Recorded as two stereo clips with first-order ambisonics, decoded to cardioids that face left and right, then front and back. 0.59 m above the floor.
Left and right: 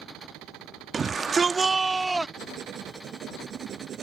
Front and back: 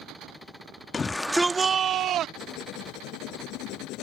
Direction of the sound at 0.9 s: 45° right.